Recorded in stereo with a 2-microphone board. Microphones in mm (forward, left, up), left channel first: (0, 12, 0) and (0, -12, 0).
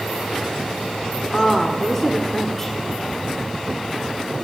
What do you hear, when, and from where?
1.3 s a woman speaking: 15° left (ahead or behind), 1.8 m